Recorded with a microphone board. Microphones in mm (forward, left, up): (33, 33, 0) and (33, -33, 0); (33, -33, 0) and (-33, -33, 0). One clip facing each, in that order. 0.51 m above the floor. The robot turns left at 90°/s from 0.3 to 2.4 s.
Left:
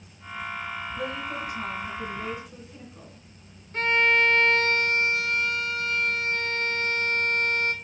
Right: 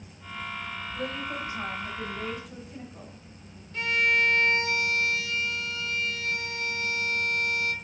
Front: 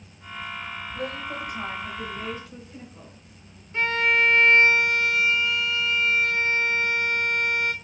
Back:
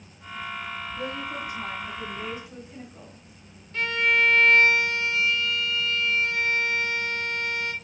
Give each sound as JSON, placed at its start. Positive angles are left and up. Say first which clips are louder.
{"t": 0.9, "sound": "a woman speaking", "louder": "even, front 2 dB", "azimuth_deg": 20, "distance_m": 3.0}
{"t": 3.7, "sound": "a violin", "louder": "left 3 dB, front 1 dB", "azimuth_deg": 60, "distance_m": 0.8}